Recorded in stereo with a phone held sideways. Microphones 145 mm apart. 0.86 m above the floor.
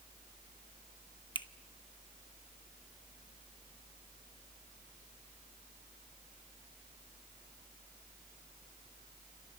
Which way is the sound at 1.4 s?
30° left (ahead or behind).